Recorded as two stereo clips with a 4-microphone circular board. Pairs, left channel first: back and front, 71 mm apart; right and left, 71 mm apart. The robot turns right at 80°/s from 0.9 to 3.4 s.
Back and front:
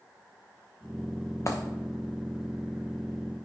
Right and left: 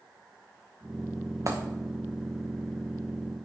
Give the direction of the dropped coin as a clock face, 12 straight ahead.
8 o'clock.